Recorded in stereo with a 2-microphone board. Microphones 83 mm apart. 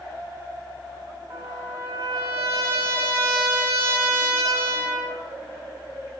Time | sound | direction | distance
1.3 | a trumpet | 35° right (ahead or behind) | 1.6 m